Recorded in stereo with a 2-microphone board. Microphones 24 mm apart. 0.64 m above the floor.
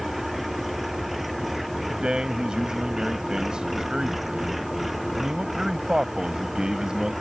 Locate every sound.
0.0 s an engine running: 5° right (ahead or behind)
1.9 s a man speaking: 35° right (ahead or behind)